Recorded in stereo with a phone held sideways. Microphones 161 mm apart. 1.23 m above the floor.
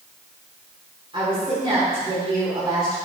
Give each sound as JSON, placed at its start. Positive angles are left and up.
{"t": 1.1, "sound": "a woman speaking", "side_deg": -35, "distance_m": 3.5}